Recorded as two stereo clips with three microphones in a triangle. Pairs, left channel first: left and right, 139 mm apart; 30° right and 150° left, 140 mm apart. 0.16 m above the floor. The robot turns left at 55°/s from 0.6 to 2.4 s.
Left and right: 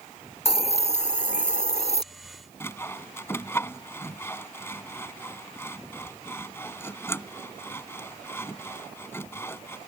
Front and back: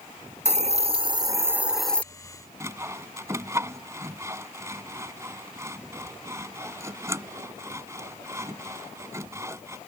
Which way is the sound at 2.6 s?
125° left.